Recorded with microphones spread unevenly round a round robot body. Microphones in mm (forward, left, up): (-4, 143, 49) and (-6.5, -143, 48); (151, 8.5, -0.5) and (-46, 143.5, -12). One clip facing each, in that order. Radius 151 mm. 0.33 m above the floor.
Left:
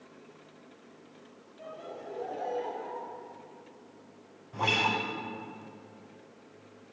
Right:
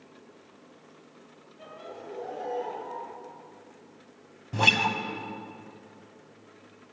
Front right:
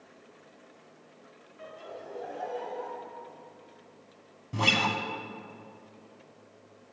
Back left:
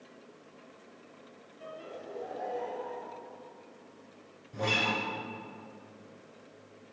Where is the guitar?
55° right, 0.8 m.